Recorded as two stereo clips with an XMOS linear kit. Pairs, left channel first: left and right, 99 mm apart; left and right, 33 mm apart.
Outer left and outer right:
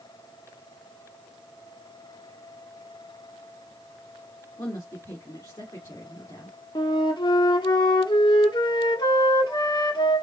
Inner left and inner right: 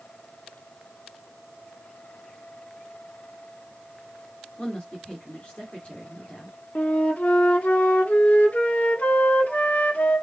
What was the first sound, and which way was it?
A woman speaking, 35° left (ahead or behind).